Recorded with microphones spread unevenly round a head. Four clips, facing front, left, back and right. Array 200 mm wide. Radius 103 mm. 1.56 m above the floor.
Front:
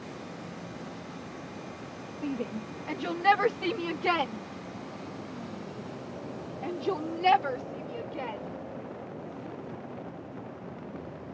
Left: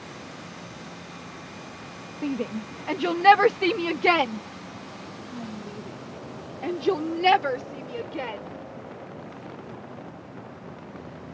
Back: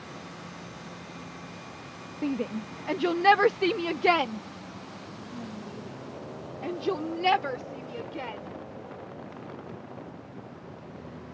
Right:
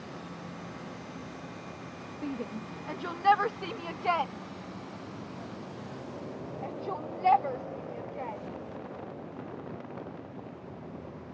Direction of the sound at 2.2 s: 160° left.